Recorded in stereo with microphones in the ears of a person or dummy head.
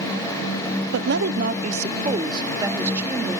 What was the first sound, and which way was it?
A woman speaking, 75° right (ahead or behind).